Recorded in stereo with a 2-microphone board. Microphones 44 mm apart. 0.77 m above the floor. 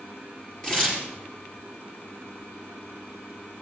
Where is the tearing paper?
15° left (ahead or behind), 4 m.